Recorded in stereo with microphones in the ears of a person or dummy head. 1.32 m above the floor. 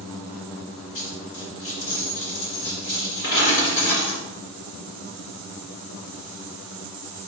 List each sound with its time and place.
0.9 s a dropped coin: 50° left (ahead or behind), 2.5 m